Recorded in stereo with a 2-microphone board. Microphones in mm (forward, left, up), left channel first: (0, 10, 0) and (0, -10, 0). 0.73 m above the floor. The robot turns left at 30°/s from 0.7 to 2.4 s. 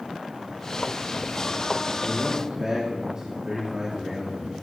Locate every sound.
2.0 s a man speaking: 35° right (ahead or behind), 1.5 m; by 4.5 s 40° right (ahead or behind), 1.5 m